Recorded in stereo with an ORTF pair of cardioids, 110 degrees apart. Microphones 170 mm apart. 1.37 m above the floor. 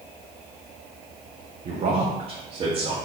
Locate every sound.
1.6 s a man speaking: 45° right, 1.1 m; by 3.0 s 35° right, 1.8 m